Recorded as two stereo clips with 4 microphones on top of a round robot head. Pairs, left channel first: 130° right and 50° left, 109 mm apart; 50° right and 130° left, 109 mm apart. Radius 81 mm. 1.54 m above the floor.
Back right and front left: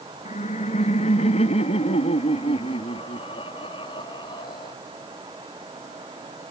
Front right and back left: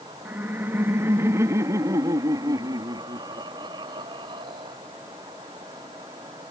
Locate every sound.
0.2 s laughter: 155° right; by 4.8 s straight behind